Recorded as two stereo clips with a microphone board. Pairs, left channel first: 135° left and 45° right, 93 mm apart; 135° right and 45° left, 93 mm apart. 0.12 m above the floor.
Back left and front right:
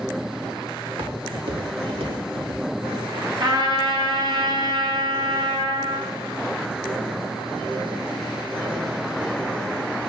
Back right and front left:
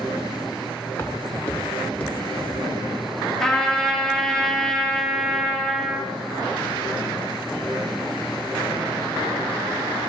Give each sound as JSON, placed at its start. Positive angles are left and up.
{"t": 0.8, "sound": "footsteps", "azimuth_deg": -70, "distance_m": 4.5}
{"t": 3.4, "sound": "a trumpet", "azimuth_deg": -50, "distance_m": 3.0}